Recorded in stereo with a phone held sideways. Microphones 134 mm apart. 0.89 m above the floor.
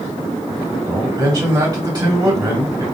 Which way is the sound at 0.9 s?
30° right (ahead or behind).